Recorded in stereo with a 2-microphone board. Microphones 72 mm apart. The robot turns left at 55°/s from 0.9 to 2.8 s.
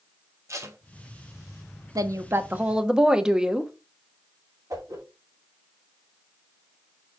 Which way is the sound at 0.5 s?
45° right (ahead or behind).